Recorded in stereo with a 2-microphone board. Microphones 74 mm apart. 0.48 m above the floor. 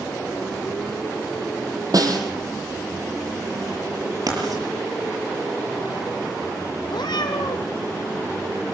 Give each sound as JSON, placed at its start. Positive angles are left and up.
{"t": 1.9, "sound": "a snare drum", "side_deg": -55, "distance_m": 3.5}
{"t": 4.3, "sound": "writing", "side_deg": -60, "distance_m": 8.0}
{"t": 6.9, "sound": "a cat meowing", "side_deg": 80, "distance_m": 2.0}